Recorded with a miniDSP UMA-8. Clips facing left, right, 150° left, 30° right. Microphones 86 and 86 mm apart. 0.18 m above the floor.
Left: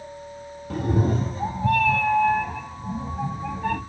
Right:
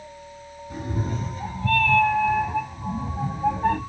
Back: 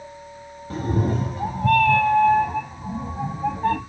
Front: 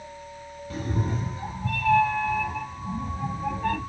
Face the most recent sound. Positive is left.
turn(degrees=-155)